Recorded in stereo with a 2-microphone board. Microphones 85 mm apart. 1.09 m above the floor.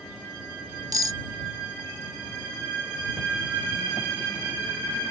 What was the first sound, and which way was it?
Cutlery clinking, 45° right (ahead or behind).